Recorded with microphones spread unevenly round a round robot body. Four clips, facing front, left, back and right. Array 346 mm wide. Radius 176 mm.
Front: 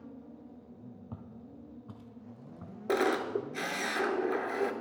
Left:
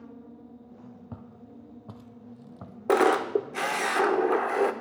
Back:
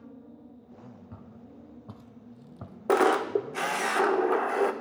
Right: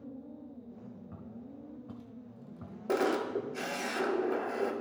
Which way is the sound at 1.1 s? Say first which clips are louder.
Left 1 dB, even; 70° left.